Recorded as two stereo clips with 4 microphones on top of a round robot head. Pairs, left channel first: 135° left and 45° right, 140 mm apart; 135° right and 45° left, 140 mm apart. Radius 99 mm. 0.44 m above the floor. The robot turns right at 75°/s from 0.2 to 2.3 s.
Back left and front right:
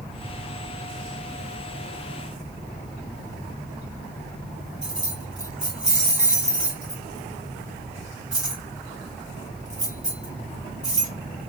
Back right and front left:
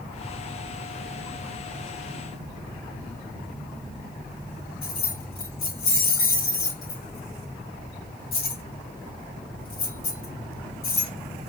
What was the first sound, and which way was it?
Keys jangling, 130° right.